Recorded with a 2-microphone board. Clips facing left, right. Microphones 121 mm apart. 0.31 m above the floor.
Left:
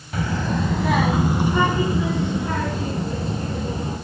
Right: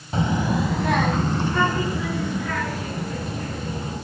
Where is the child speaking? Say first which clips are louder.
Right 2 dB; 30° right (ahead or behind), 1.3 m; by 4.0 s 30° left (ahead or behind), 5.5 m.